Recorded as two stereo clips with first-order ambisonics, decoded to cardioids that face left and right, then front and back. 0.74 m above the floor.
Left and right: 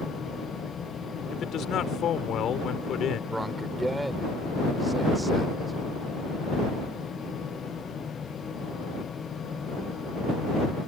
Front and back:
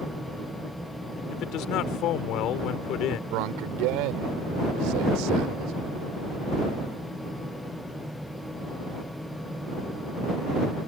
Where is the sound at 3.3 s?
175° right.